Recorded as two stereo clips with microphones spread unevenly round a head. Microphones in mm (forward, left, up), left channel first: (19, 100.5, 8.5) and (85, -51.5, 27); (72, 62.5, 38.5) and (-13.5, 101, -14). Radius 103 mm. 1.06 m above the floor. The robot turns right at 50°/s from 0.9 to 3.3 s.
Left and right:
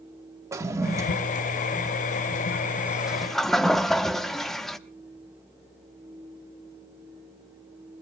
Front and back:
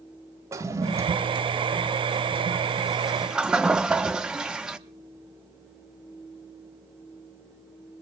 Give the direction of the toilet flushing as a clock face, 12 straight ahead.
4 o'clock.